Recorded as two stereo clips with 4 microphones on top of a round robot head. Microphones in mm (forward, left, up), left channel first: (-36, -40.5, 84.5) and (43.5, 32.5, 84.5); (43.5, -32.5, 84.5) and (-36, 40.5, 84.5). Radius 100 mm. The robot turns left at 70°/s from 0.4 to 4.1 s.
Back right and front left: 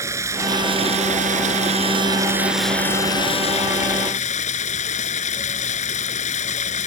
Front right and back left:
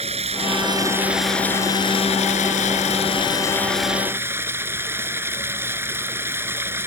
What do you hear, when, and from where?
0.0 s running water: 110° left; by 6.9 s 150° right